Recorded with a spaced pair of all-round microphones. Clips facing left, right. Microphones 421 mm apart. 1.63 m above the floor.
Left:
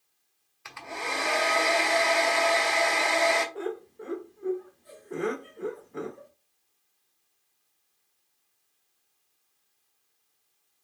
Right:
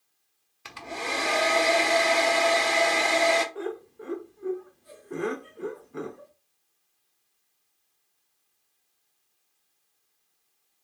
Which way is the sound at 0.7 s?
55° right (ahead or behind).